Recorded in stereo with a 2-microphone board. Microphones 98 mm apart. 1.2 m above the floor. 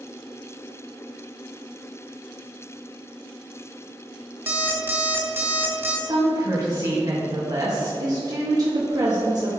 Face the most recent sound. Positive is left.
turn(degrees=-40)  # may be behind; listen again after turning